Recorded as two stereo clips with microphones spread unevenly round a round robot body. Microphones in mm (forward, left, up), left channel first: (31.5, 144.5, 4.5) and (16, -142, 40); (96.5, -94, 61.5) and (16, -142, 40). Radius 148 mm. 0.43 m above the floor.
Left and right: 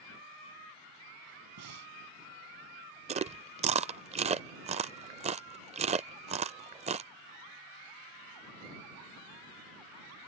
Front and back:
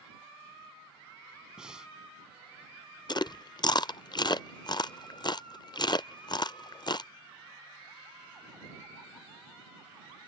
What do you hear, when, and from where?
1.6 s breathing: 65° right
3.1 s chewing: 20° right